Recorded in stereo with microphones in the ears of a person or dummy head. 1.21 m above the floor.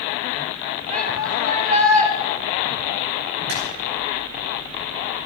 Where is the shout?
45° right (ahead or behind), 5 m.